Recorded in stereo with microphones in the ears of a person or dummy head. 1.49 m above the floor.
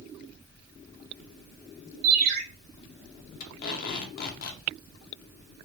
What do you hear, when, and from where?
2.0 s a ringtone: 60° right (ahead or behind), 0.8 m
3.4 s tape being pulled: 55° left (ahead or behind), 0.6 m